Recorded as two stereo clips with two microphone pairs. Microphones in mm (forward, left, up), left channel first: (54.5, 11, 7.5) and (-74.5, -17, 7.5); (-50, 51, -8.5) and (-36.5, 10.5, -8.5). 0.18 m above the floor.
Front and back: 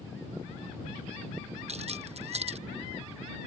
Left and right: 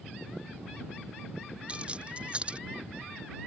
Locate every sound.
1.7 s keys jangling: 135° right